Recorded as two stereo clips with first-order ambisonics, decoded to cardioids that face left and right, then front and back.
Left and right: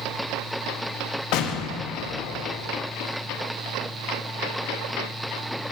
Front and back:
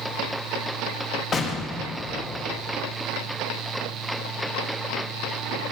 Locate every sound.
1.3 s an explosion: 65° left, 0.9 m